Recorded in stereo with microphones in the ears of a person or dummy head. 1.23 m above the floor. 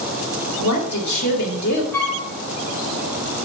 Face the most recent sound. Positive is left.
turn(degrees=10)  # may be behind; listen again after turning